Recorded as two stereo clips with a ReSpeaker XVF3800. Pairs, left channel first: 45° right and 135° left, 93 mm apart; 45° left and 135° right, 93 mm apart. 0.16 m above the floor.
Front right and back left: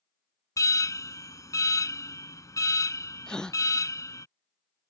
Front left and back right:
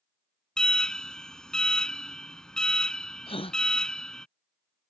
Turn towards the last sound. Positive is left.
turn(degrees=35)